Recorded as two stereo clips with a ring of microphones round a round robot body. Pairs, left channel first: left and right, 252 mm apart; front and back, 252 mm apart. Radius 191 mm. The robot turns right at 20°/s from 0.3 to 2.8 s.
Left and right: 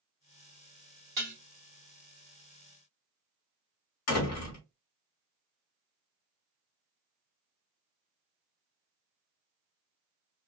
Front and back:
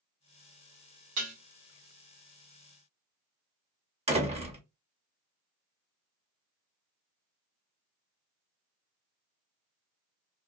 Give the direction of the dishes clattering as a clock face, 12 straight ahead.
5 o'clock.